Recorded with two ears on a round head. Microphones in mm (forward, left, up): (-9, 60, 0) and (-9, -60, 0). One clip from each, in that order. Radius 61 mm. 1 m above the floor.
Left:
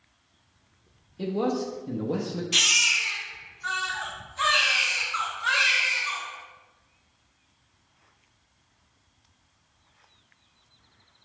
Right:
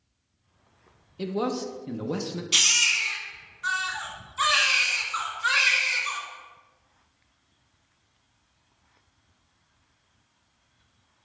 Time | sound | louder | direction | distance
1.2 | a man speaking | left 1 dB | 45° right (ahead or behind) | 0.7 m
2.5 | a baby crying | even | 80° right | 1.5 m